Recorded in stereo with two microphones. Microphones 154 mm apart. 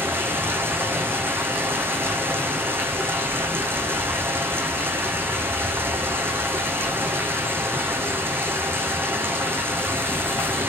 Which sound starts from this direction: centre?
Running water, at 0.0 s.